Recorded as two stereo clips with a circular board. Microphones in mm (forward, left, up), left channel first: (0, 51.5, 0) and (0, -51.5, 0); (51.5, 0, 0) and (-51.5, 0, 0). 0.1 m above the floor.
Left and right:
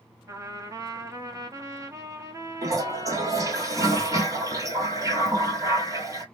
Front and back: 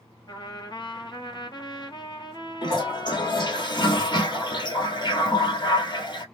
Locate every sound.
0.3 s a trumpet: 35° right, 0.9 m
2.6 s a toilet flushing: 40° right, 1.1 m